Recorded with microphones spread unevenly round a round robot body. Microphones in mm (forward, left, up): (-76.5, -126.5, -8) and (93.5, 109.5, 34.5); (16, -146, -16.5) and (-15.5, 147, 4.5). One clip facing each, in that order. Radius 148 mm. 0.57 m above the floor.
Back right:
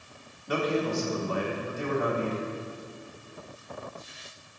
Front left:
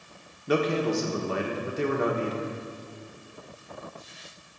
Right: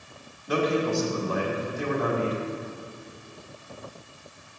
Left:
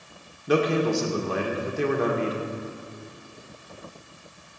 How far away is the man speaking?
About 1.8 m.